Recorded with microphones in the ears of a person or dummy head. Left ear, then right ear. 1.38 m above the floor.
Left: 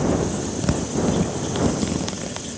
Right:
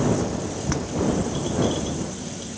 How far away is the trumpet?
No trumpet in this recording.